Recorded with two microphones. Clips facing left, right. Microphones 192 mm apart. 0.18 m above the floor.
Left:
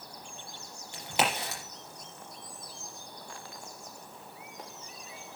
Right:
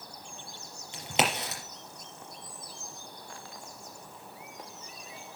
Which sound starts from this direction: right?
A crack, at 0.9 s.